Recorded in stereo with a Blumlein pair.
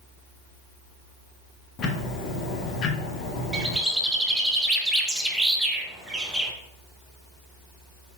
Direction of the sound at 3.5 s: 5° right.